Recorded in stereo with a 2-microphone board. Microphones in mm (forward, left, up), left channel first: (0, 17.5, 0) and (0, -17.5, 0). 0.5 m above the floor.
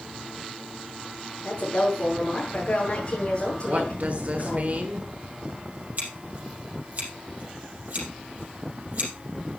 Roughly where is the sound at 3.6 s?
Right.